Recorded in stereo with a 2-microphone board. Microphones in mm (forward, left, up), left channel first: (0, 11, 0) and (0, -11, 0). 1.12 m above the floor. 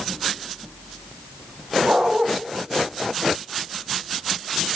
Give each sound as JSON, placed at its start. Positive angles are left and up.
{"t": 1.8, "sound": "a dog barking", "side_deg": -75, "distance_m": 3.0}